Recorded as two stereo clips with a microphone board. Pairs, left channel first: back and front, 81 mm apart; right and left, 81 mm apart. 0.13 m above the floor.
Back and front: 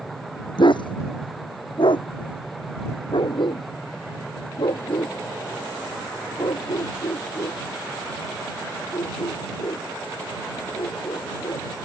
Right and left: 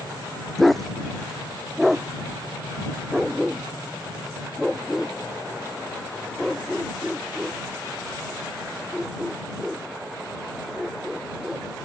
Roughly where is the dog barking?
Behind.